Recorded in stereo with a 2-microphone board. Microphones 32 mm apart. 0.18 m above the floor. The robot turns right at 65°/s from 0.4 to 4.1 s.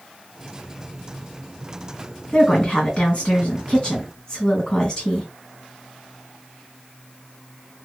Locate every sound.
2.3 s a woman speaking: 35° left, 1.9 m; by 5.3 s 150° left, 1.9 m